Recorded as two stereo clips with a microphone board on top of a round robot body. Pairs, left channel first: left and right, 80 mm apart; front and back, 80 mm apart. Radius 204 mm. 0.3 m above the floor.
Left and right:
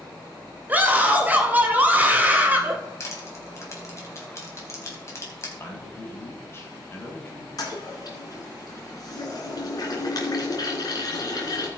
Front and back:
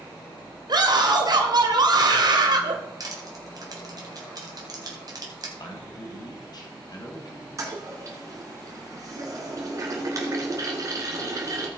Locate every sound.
0.7 s a scream: 155° right, 2.5 m
3.0 s crushing: 145° left, 3.5 m
5.6 s a man speaking: 35° left, 3 m
7.6 s a toilet flushing: 130° left, 3 m